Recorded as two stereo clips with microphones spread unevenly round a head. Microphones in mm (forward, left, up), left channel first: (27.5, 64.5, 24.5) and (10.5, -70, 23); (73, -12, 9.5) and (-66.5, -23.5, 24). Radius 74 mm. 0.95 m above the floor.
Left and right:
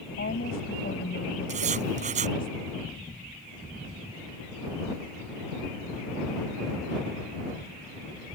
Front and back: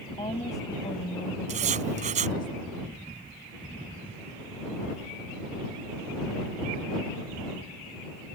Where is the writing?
140° right.